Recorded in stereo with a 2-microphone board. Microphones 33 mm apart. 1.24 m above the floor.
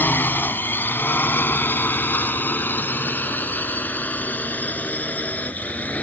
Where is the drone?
80° left; by 6.0 s 50° left (ahead or behind).